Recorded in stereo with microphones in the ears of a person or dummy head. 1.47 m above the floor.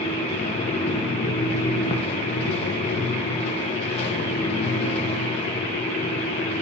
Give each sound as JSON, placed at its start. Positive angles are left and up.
{"t": 0.0, "sound": "a fan", "side_deg": 40, "distance_m": 0.9}